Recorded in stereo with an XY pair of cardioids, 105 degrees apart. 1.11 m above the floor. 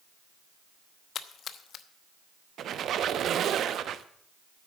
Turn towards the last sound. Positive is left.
turn(degrees=-65)